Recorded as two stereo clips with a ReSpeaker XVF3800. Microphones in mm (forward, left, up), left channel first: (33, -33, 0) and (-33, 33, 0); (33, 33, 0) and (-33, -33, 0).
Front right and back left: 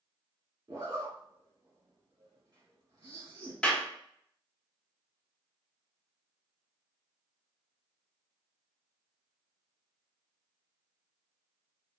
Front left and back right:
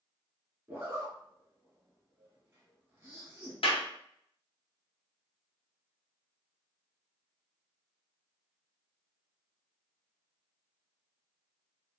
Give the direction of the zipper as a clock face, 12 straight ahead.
6 o'clock.